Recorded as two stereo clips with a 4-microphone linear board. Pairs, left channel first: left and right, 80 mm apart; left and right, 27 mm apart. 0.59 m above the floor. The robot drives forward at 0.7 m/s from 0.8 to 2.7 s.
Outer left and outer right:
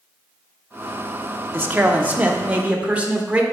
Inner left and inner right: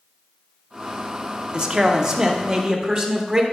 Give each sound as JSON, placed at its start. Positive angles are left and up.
{"t": 1.5, "sound": "a man speaking", "side_deg": -25, "distance_m": 0.9}